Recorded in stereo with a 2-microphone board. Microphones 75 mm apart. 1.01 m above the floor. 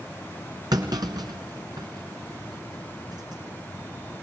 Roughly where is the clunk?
Right.